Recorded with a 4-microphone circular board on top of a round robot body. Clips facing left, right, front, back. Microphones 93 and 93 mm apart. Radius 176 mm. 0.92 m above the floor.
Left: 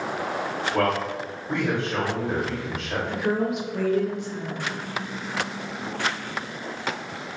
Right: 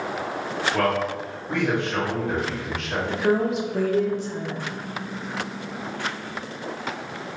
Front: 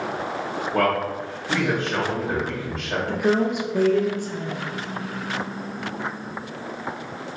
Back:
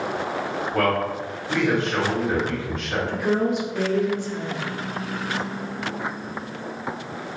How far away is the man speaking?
About 1.5 m.